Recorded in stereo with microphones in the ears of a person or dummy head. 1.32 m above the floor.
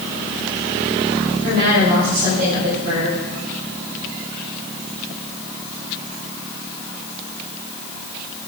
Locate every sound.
1.4 s a woman speaking: 50° right (ahead or behind), 5 m; by 3.2 s 45° right (ahead or behind), 6 m